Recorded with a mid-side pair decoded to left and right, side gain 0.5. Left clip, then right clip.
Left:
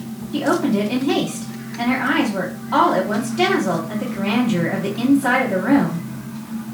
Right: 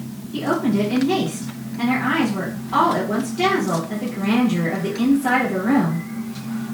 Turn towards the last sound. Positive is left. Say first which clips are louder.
# left 2 dB
turn(degrees=70)